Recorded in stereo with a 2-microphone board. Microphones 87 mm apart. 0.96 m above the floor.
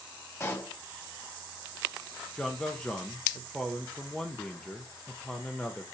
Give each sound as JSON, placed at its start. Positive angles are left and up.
{"t": 0.4, "sound": "a pop", "side_deg": 30, "distance_m": 1.7}
{"t": 2.4, "sound": "a man speaking", "side_deg": 10, "distance_m": 1.1}